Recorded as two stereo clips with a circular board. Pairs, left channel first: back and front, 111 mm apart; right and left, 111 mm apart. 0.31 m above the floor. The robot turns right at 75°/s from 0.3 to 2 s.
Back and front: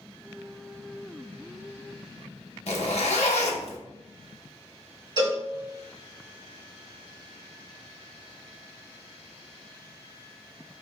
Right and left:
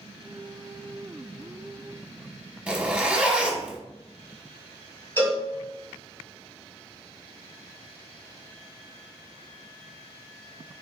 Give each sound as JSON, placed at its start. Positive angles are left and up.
{"t": 2.7, "sound": "a zipper", "azimuth_deg": 170, "distance_m": 0.6}
{"t": 5.2, "sound": "a cowbell", "azimuth_deg": -25, "distance_m": 1.9}